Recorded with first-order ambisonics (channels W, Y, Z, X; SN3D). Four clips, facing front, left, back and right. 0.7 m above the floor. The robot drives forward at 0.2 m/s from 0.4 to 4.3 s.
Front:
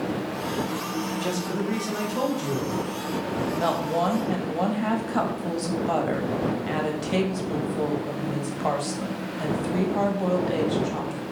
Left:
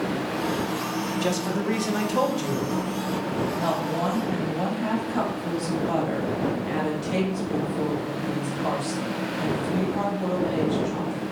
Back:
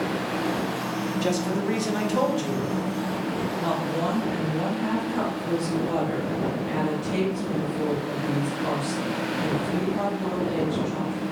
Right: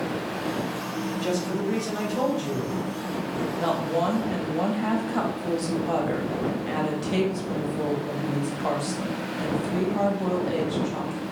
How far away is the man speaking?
About 0.6 m.